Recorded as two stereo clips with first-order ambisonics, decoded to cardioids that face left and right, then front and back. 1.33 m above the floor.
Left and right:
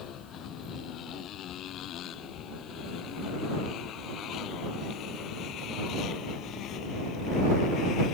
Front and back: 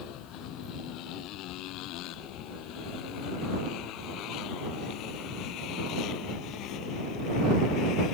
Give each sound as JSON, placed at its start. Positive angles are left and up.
{"t": 0.0, "sound": "a motorcycle", "azimuth_deg": 40}